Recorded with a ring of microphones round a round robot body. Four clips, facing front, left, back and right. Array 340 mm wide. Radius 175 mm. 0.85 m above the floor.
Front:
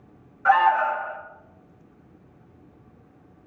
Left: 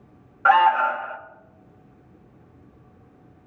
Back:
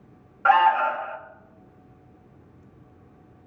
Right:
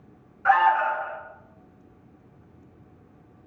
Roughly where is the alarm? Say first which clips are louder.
Left 3 dB, even; behind left.